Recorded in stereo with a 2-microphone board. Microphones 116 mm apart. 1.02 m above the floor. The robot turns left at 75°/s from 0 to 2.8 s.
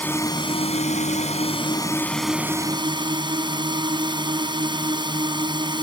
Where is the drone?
170° left; by 5.8 s 40° right.